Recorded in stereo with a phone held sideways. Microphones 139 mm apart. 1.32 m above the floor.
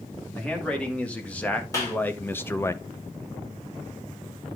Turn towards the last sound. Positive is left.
turn(degrees=25)  # may be behind; listen again after turning